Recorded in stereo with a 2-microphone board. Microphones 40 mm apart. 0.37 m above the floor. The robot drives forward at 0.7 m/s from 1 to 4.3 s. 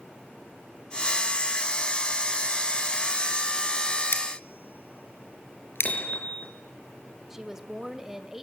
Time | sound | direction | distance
4.1 | scissors | 65° left (ahead or behind) | 5 m
5.8 | hammering | 35° left (ahead or behind) | 5 m
7.3 | a woman speaking | 10° right (ahead or behind) | 2 m